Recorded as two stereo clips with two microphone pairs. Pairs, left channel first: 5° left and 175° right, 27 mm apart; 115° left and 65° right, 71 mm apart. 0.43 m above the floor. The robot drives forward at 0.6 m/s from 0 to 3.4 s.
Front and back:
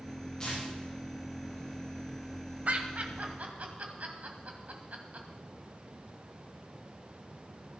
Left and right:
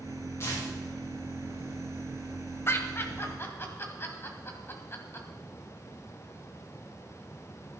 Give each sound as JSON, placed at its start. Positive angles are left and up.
{"t": 0.4, "sound": "tearing paper", "azimuth_deg": 65, "distance_m": 8.5}
{"t": 2.7, "sound": "laughter", "azimuth_deg": 165, "distance_m": 2.0}